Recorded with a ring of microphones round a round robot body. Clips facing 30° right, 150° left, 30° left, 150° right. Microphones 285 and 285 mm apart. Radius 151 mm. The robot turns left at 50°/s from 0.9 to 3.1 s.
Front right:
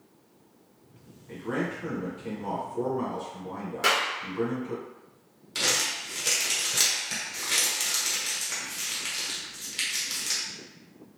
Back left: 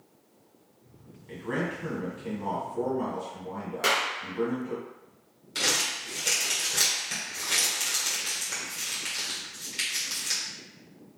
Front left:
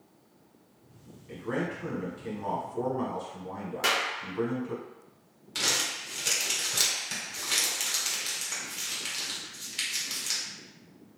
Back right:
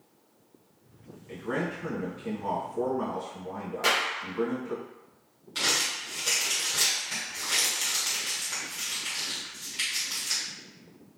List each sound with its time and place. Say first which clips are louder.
1.3 s a man speaking: front right 1 dB, even; 125° left, 1.5 m; by 4.8 s 35° left, 1.5 m
3.8 s a clap: even, back right 3 dB; 65° left, 1.1 m
5.5 s crumpling: even, back right 1 dB; 50° left, 1.5 m